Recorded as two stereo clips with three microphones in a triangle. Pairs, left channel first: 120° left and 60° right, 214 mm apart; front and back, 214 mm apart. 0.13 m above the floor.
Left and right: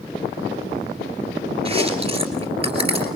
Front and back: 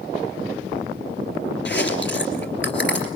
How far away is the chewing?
About 2.5 m.